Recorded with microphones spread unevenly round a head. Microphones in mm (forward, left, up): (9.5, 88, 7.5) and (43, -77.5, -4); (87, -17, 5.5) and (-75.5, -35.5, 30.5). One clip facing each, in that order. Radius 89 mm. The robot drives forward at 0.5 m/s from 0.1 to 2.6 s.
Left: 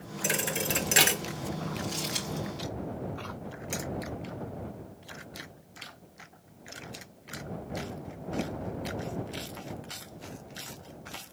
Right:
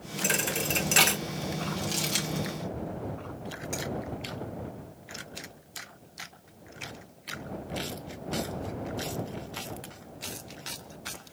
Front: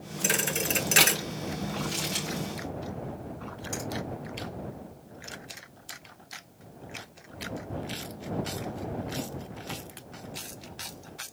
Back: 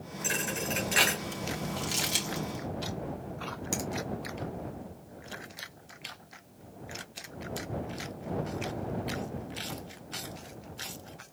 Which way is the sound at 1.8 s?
135° right.